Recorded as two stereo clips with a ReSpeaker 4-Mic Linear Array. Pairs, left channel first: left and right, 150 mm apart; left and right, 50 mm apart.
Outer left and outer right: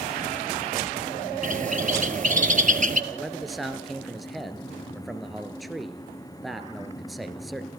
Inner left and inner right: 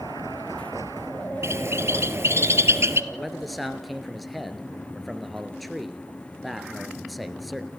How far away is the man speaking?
About 1.8 m.